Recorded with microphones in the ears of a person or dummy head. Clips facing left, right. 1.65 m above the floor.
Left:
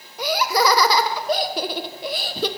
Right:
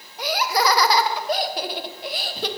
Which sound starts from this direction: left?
Laughter, at 0.2 s.